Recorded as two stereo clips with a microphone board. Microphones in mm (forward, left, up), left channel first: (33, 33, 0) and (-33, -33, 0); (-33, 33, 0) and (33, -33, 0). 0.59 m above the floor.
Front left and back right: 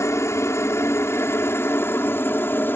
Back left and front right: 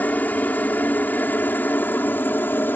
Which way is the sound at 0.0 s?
75° left.